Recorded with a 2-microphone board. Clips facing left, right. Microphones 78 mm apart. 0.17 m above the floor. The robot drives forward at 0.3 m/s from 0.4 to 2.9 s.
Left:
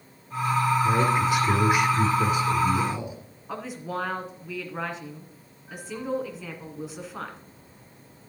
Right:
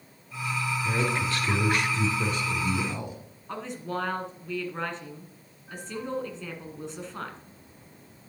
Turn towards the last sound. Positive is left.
turn(degrees=5)  # may be behind; listen again after turning